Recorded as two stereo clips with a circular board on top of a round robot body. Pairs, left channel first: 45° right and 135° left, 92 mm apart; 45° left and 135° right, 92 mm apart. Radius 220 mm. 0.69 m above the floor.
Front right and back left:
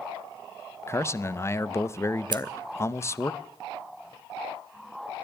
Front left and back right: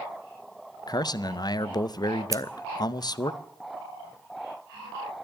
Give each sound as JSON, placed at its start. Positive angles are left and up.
{"t": 0.9, "sound": "a man speaking", "azimuth_deg": 10, "distance_m": 0.8}
{"t": 2.3, "sound": "scissors", "azimuth_deg": 170, "distance_m": 0.6}